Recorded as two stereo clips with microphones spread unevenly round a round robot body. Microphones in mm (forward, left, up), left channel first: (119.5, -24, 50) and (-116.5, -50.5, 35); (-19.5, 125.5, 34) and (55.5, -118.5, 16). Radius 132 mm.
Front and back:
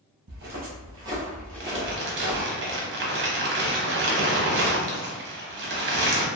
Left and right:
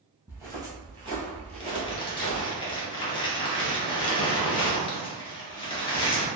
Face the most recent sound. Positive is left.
turn(degrees=175)